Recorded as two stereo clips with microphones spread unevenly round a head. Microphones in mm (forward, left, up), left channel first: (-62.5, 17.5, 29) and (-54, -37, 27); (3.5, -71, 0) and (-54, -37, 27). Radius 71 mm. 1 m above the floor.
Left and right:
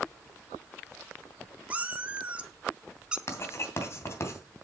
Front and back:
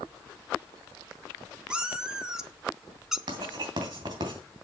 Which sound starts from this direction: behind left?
Writing, at 3.3 s.